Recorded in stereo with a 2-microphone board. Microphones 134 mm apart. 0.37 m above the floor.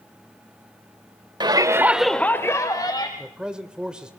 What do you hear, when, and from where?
1.4 s a shout: 35° right (ahead or behind), 1.2 m; by 3.1 s 30° left (ahead or behind), 2.0 m
3.2 s a man speaking: 5° right (ahead or behind), 1.0 m